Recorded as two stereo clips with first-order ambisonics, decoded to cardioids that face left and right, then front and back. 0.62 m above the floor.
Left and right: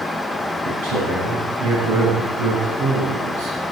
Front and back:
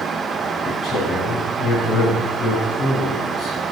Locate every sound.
0.7 s a man speaking: 70° right, 4.5 m